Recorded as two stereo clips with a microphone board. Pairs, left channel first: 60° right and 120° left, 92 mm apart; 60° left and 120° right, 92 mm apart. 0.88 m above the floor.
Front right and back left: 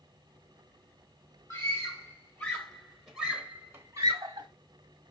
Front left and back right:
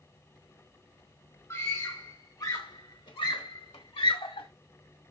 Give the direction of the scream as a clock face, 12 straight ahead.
12 o'clock.